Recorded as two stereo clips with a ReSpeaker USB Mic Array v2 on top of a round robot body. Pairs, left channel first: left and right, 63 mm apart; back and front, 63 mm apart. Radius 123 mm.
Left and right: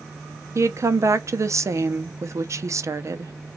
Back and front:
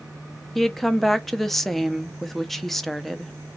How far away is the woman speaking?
About 0.8 m.